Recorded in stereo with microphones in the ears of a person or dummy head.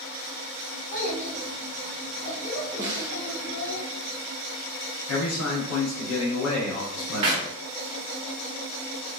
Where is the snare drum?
20° right (ahead or behind), 0.6 m.